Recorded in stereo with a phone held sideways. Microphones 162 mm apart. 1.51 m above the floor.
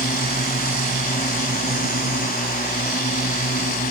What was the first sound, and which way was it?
A drone, 60° left (ahead or behind).